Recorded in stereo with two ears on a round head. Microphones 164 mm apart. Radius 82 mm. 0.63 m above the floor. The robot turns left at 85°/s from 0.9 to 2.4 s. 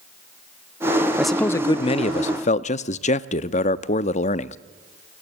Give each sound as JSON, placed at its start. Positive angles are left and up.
{"t": 1.2, "sound": "a man speaking", "azimuth_deg": -175, "distance_m": 0.6}